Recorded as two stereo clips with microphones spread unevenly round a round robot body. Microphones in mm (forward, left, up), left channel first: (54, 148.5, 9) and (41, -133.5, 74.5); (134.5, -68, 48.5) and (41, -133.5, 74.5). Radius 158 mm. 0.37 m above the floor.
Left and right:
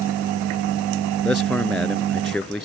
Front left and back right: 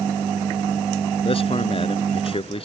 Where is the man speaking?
Straight ahead.